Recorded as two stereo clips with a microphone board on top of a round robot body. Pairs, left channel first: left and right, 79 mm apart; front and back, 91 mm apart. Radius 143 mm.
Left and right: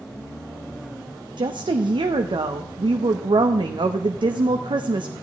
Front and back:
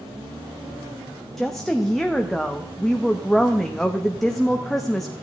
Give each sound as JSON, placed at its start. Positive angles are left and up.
{"t": 1.4, "sound": "a woman speaking", "azimuth_deg": -85, "distance_m": 0.8}